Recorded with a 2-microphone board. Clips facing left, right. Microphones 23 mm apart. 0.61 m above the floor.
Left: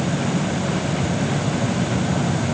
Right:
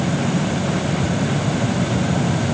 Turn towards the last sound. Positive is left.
No sound to turn to.